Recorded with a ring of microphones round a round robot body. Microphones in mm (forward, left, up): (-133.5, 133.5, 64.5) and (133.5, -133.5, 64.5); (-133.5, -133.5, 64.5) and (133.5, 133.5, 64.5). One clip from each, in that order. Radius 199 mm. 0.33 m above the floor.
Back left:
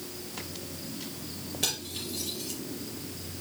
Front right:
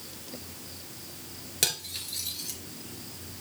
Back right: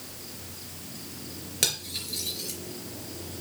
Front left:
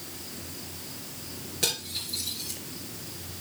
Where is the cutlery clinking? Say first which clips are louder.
Front right 2 dB, back right 1 dB; 80° right, 3.5 m.